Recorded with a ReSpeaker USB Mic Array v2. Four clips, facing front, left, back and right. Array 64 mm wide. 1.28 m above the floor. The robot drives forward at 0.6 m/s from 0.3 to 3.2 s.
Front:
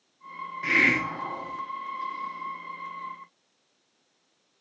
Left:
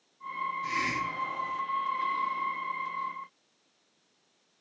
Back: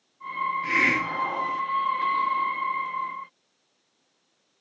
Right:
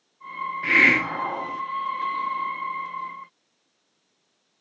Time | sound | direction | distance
0.6 | a hiss | 75° right | 0.6 m